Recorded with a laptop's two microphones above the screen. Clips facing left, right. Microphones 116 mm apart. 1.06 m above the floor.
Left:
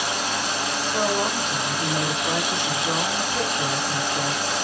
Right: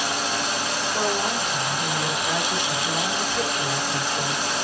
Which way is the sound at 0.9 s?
60° left (ahead or behind).